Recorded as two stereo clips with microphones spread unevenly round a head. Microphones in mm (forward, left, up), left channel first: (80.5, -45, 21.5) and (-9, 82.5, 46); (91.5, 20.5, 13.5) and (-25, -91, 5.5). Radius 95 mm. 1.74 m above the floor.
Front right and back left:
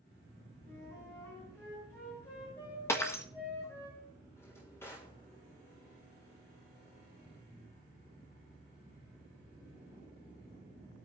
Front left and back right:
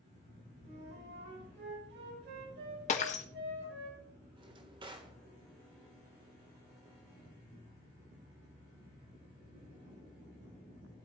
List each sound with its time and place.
0.6 s a flute: 130° right, 6 m
2.9 s breaking glass: 25° left, 1.3 m
4.4 s a drawer: 135° right, 1.5 m